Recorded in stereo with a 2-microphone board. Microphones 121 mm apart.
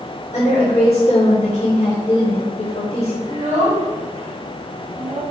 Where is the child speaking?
70° right (ahead or behind), 1.6 m.